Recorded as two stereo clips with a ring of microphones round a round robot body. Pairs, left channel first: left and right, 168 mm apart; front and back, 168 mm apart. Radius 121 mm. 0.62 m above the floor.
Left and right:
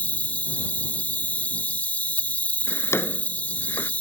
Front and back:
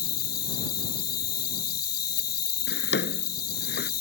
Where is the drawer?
15° left.